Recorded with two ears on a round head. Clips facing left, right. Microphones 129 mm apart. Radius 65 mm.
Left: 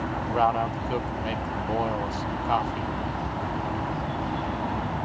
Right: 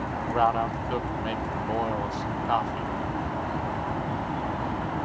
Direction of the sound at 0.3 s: 5° left (ahead or behind).